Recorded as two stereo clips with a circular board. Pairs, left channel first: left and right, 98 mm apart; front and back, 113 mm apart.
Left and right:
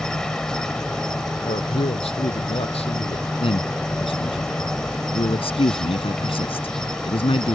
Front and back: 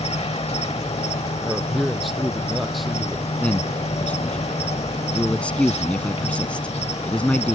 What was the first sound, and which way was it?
An insect, 5° left.